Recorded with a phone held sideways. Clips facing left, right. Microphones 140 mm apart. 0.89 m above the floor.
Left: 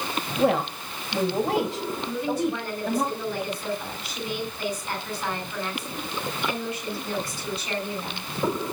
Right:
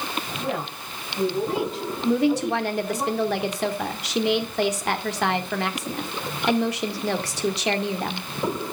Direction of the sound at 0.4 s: 80° left.